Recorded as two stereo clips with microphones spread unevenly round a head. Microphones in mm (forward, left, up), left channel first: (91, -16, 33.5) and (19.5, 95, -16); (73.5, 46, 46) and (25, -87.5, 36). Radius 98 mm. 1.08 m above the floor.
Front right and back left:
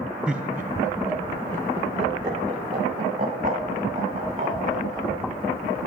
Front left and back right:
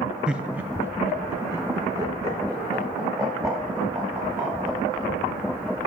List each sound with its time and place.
0.3 s laughter: 175° left, 0.6 m; by 5.1 s 175° right, 3.5 m